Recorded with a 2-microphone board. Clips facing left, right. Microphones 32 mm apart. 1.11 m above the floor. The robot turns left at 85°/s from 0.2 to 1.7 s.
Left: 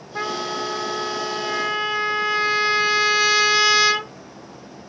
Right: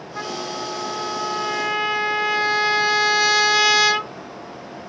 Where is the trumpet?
20° left (ahead or behind), 0.8 m; by 4.1 s centre (ahead or behind), 0.8 m.